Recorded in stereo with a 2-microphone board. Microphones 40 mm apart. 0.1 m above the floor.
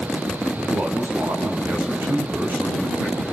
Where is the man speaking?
55° right (ahead or behind), 6 m.